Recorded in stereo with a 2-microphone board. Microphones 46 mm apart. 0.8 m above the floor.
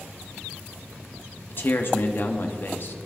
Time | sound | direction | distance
1.5 | a man speaking | 50° left (ahead or behind) | 0.9 m